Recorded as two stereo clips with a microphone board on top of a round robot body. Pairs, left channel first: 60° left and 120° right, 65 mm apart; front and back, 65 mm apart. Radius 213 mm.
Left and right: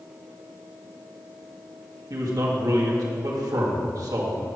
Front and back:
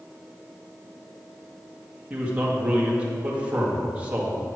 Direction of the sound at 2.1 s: 115° right.